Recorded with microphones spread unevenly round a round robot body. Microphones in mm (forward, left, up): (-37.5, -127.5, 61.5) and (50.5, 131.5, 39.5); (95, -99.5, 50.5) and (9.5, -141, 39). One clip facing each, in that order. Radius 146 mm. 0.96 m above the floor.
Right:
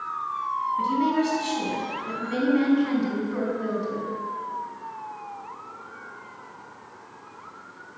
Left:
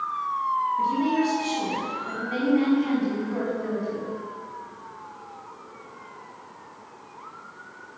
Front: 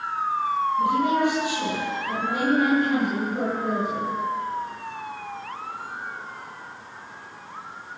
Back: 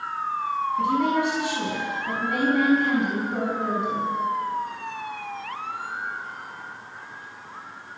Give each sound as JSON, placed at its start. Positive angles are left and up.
{"t": 0.8, "sound": "a woman speaking", "azimuth_deg": 180, "distance_m": 7.5}